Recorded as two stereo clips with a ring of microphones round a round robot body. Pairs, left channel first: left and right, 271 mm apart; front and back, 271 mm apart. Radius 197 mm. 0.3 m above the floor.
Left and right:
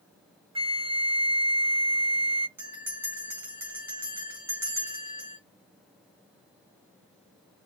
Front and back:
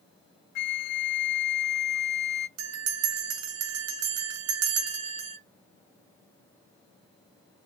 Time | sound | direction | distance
0.6 | a flute | 15° right | 0.6 m
2.6 | a bell | 170° right | 1.6 m